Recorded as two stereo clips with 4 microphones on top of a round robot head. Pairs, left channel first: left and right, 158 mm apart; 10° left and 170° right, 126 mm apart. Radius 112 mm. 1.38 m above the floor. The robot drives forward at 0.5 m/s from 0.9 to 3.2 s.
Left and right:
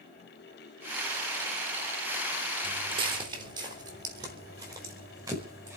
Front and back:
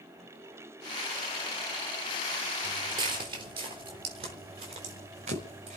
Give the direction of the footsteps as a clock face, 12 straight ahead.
4 o'clock.